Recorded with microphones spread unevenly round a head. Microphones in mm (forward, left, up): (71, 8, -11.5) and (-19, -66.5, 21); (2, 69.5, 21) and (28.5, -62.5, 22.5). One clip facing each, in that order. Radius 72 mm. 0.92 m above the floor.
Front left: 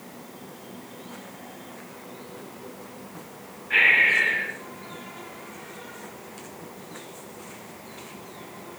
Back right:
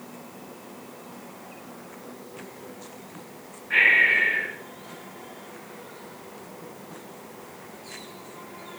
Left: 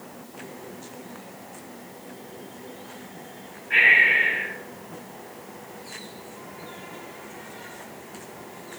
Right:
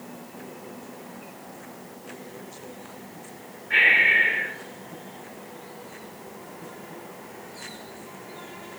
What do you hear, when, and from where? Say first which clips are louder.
3.7 s breathing: even, left 1 dB; 25° right, 5 m